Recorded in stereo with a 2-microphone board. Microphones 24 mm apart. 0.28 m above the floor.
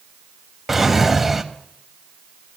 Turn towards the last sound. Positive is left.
turn(degrees=-5)  # may be behind; listen again after turning